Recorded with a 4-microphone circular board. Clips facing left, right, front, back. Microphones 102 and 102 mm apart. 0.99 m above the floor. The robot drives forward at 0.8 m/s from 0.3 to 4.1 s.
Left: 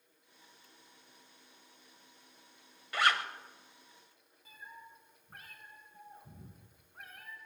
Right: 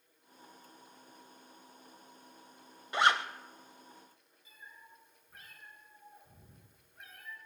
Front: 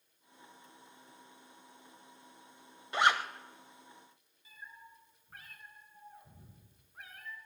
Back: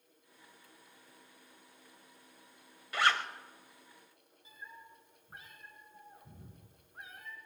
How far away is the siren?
No siren in this recording.